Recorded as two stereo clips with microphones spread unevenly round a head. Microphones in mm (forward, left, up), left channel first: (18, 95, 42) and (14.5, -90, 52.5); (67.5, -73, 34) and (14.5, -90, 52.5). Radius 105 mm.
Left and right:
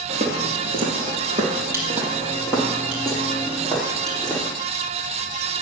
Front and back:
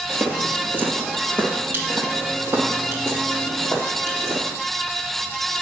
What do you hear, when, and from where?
0.1 s footsteps: 125° right, 1.8 m; by 4.5 s 175° left, 3.5 m